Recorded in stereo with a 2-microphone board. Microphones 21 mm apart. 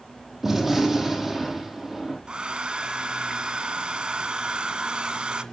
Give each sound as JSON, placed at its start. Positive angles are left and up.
{"t": 0.4, "sound": "a gunshot", "side_deg": -10, "distance_m": 7.5}
{"t": 2.3, "sound": "a hair dryer", "side_deg": -55, "distance_m": 1.5}